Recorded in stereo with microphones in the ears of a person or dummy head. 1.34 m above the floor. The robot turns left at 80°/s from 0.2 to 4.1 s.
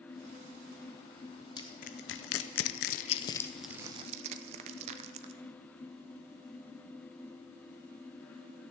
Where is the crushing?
15° left (ahead or behind), 0.6 m; by 5.3 s 35° right (ahead or behind), 0.6 m.